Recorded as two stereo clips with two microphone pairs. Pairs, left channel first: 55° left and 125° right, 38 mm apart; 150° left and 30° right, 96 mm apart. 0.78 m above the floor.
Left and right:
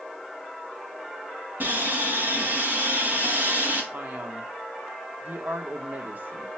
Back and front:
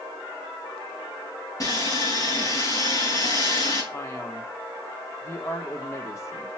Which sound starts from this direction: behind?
Sawing, at 1.6 s.